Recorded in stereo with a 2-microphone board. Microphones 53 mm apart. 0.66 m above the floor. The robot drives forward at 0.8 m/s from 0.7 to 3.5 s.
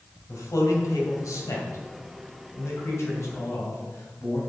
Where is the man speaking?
80° left, 3 m; by 4.4 s 55° left (ahead or behind), 3.5 m.